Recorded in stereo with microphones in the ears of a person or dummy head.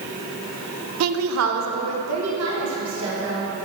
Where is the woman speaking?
85° right, 0.5 m; by 3.5 s 75° right (ahead or behind), 2.5 m.